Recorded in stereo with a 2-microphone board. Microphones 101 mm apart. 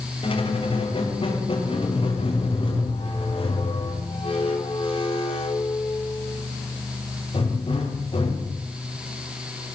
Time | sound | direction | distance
0.2 | a squeak | 60° left (ahead or behind) | 7 m